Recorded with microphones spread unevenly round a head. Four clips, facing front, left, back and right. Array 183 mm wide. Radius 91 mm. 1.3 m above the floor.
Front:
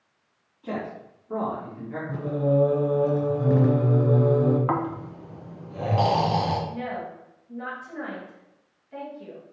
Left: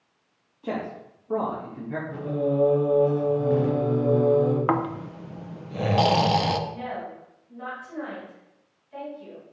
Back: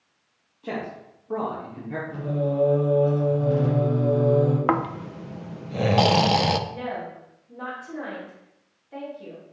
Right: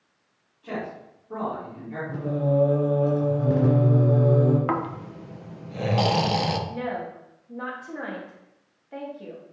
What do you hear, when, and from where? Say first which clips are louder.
0.6 s a man speaking: left 2 dB, even; 115° left, 1.9 m; by 2.0 s 140° left, 2 m
2.1 s singing: right 2 dB, front 3 dB; 50° right, 2.5 m
4.7 s snoring: left 2 dB, back 3 dB; 165° left, 0.8 m
6.7 s a woman speaking: right 3 dB, even; 100° right, 2.5 m